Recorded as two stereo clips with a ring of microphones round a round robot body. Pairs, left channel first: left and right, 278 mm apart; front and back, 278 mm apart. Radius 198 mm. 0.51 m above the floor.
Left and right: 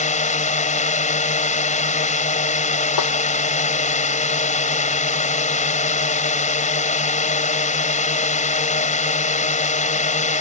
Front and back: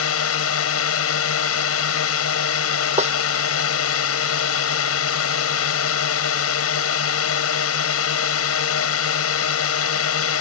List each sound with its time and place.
0.0 s a drone: 30° left
3.0 s a snare drum: 115° left